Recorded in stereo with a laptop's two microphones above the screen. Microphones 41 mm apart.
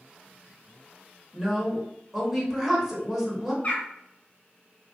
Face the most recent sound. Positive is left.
turn(degrees=35)  # may be behind; listen again after turning